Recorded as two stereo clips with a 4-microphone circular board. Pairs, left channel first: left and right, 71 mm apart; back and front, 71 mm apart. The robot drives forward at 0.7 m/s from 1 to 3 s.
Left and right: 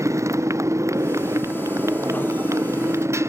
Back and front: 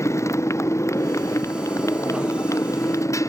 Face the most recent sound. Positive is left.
turn(degrees=-140)